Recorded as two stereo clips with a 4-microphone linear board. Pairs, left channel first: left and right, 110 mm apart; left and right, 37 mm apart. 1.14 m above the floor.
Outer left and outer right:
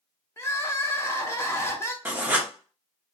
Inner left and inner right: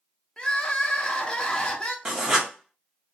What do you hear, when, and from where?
0.4 s crying: 25° left (ahead or behind), 0.6 m
2.0 s writing: 15° right (ahead or behind), 0.7 m